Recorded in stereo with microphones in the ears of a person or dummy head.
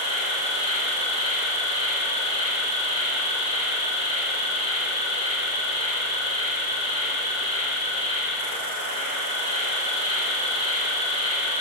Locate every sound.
0.0 s an insect: 75° right (ahead or behind), 1.1 m